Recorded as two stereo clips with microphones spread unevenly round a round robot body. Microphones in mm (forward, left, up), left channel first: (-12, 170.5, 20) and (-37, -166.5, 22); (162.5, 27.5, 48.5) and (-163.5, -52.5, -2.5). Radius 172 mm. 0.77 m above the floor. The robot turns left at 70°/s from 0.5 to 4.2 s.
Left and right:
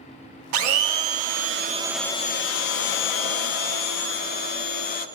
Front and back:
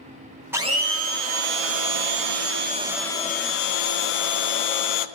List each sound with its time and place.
0.5 s a blender: 85° right, 0.7 m; by 5.1 s 20° left, 0.7 m